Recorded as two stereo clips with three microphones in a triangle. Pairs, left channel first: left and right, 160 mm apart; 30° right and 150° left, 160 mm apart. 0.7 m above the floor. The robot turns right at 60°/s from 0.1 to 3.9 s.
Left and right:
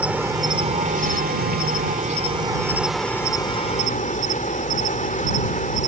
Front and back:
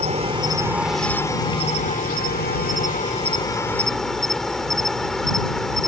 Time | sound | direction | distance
0.0 | an insect | 170° right | ?